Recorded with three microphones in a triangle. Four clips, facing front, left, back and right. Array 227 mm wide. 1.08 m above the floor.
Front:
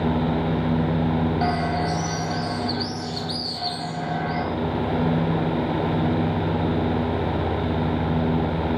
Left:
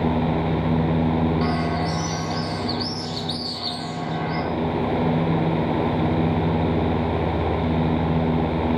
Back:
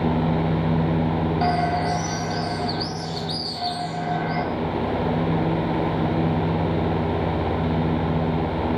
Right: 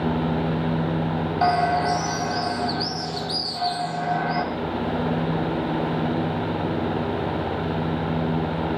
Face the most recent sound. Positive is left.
turn(degrees=-90)